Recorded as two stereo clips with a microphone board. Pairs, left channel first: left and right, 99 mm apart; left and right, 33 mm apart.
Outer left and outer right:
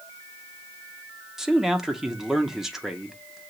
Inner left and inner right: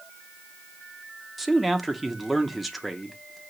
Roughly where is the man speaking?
Centre.